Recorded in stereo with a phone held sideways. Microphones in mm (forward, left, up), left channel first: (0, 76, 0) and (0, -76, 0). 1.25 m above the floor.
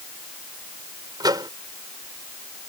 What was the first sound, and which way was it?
A microwave, 25° right (ahead or behind).